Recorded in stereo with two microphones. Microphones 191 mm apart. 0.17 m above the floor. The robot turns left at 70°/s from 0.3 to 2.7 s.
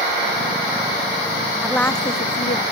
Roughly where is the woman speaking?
Behind.